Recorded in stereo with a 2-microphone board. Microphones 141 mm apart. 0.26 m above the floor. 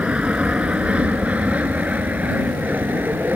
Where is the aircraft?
10° right (ahead or behind).